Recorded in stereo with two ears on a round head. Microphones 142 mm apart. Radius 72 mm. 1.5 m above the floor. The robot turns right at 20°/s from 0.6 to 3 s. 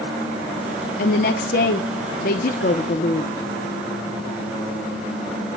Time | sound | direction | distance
1.0 | a woman speaking | 70° left | 0.8 m